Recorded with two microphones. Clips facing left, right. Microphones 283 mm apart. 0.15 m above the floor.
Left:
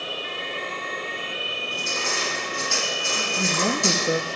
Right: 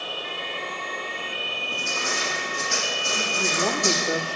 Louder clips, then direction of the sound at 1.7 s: Even; centre (ahead or behind).